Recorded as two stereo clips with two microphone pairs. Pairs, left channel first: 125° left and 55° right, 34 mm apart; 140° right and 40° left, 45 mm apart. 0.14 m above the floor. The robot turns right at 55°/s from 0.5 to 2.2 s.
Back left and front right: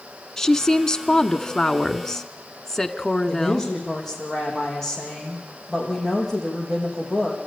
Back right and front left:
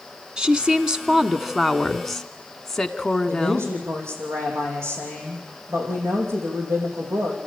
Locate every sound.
0.4 s a woman speaking: 70° left, 1.0 m; by 3.7 s 160° left, 1.0 m
3.3 s a woman speaking: 45° left, 6.5 m